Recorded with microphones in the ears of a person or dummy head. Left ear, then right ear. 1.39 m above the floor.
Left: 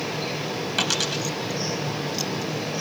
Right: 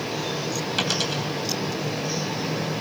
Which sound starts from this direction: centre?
A dropped coin, at 0.8 s.